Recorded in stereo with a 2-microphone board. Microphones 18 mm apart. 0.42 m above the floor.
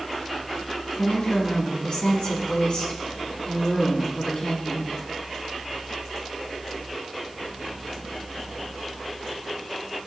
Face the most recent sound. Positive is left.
turn(degrees=55)  # may be behind; listen again after turning